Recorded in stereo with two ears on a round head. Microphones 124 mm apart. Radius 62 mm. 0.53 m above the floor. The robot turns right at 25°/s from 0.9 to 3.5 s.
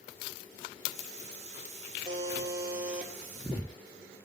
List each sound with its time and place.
2.0 s a buzzer: 35° right (ahead or behind), 3.5 m; by 3.1 s 5° right (ahead or behind), 3.5 m